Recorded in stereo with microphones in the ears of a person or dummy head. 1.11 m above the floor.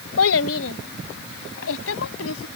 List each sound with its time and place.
0.2 s a child speaking: 90° left